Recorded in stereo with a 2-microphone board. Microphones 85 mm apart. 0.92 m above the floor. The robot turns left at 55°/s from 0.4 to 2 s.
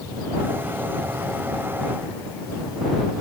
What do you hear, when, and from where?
Only background noise.